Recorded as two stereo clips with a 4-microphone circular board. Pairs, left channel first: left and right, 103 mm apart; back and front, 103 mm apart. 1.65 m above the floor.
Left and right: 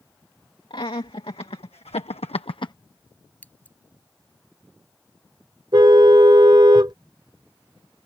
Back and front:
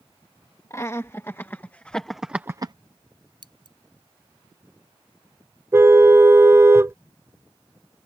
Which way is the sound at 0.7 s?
120° left.